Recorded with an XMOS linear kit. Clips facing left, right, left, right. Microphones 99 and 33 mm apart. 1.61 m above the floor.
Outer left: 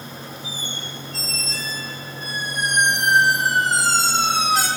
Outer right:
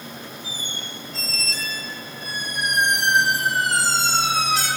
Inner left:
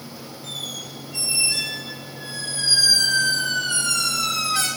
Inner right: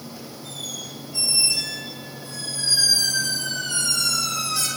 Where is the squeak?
70° left (ahead or behind), 5 m.